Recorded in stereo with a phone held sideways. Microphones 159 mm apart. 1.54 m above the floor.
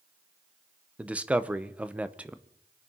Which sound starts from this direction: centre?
A man speaking, at 1.0 s.